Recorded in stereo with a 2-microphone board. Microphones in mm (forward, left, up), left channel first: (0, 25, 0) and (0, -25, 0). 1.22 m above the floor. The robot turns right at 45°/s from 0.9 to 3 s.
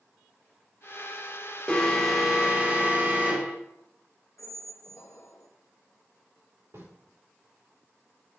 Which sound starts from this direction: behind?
An alarm, at 1.7 s.